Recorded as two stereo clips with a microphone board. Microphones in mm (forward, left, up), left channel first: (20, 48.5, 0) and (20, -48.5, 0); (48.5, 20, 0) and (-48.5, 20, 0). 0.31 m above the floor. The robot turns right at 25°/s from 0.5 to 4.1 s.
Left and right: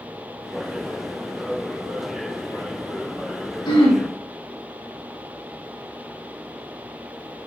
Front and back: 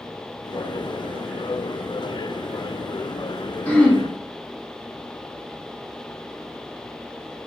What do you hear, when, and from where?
3.6 s throat clearing: 65° left, 2 m; by 4.0 s 75° left, 2 m